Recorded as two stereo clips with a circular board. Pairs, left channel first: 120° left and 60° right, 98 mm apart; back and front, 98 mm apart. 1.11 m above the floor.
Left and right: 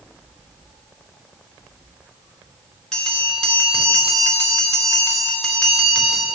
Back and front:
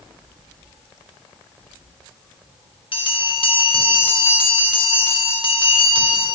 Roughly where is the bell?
Behind right.